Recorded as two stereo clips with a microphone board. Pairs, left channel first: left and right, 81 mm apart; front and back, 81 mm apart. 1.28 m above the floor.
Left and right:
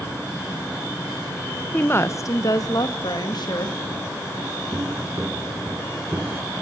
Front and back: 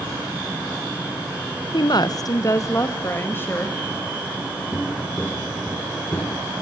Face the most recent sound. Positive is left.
turn(degrees=-35)